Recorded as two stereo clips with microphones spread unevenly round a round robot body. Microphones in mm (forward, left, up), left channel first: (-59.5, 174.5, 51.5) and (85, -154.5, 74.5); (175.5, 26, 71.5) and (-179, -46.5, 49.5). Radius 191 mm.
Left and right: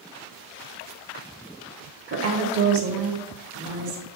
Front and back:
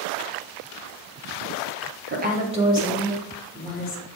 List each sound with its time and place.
2.1 s a woman speaking: 120° right, 1.2 m; by 4.0 s 70° right, 1.9 m